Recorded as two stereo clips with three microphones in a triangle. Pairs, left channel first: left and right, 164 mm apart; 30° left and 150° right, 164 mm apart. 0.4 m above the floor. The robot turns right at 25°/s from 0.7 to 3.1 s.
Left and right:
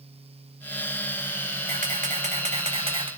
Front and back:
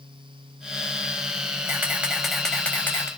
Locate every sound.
1.7 s a camera shutter: 75° right, 2 m; by 3.1 s 40° right, 2 m